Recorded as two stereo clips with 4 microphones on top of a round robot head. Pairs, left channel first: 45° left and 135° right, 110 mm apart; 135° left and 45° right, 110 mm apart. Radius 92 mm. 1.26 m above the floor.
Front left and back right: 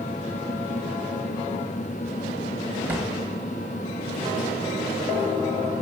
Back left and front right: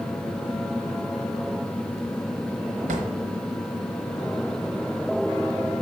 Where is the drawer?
60° right, 1.3 m.